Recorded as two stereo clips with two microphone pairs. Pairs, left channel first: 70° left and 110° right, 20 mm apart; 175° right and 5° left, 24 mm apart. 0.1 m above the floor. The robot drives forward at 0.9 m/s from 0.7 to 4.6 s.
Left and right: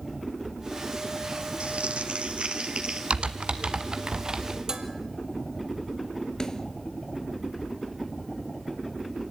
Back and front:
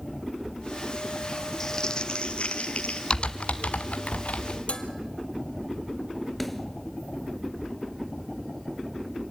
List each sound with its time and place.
1.6 s crumpling: 105° right, 1.0 m; by 3.0 s 150° right, 1.7 m
3.1 s typing on a keyboard: 130° right, 0.8 m; by 4.6 s 160° right, 2.0 m
4.7 s dishes clattering: 165° right, 1.6 m
6.4 s a snare drum: 95° left, 1.4 m